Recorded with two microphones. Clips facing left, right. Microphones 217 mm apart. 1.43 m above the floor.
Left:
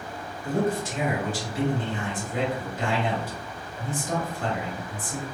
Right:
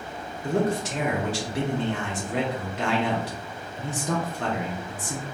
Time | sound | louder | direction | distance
0.4 | a man speaking | right 1 dB | 65° right (ahead or behind) | 1.3 m